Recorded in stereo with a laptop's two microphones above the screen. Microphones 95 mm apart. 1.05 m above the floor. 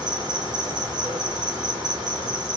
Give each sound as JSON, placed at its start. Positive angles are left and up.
{"t": 0.0, "sound": "an insect", "side_deg": -50, "distance_m": 1.4}